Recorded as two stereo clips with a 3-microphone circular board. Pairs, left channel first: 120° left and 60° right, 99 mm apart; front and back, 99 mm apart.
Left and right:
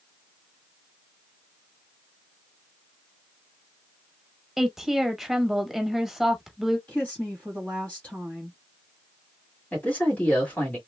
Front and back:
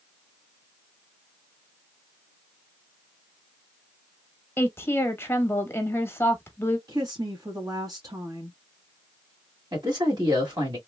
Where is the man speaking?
170° right, 1.8 m.